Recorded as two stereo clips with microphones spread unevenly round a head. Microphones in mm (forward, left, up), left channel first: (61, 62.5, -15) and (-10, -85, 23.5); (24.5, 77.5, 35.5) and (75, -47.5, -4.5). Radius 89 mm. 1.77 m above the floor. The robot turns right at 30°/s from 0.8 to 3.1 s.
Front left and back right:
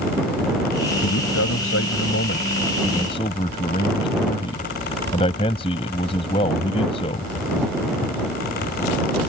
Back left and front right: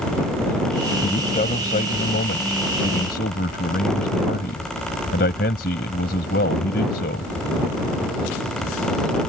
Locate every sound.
1.0 s a man speaking: 65° left; by 7.3 s 130° left